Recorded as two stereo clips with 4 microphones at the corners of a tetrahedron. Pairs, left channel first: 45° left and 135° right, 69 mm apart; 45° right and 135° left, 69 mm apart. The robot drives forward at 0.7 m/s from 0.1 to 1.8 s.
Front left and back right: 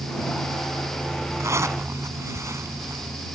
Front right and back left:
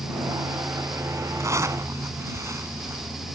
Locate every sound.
1.4 s a zipper: straight behind